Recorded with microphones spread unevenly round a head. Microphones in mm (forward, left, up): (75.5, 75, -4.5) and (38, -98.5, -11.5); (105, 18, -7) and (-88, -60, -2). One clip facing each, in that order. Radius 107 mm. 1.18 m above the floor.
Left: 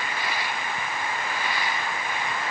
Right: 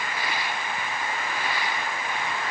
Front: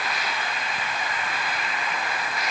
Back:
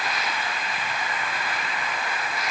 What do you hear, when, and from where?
Only background noise.